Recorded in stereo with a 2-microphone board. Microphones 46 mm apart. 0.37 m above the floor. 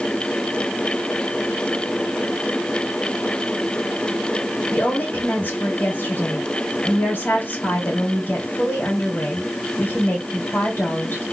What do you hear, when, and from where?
4.7 s a woman speaking: 50° left (ahead or behind), 2.5 m